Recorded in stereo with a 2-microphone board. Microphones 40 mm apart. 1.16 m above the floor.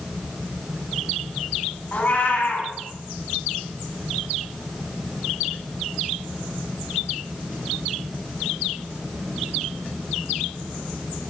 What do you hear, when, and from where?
1.9 s a cat meowing: 50° left (ahead or behind), 1.7 m